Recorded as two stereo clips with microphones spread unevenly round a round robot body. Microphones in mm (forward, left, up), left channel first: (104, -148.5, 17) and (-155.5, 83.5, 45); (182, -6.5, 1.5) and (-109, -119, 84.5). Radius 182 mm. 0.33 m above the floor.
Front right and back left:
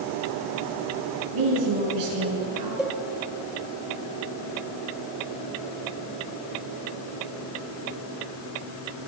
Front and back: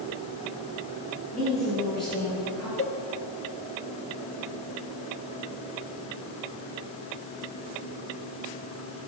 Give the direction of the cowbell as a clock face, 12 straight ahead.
10 o'clock.